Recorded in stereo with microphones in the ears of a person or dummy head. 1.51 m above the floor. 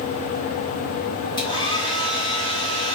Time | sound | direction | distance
1.4 | a hair dryer | 25° left (ahead or behind) | 1.1 m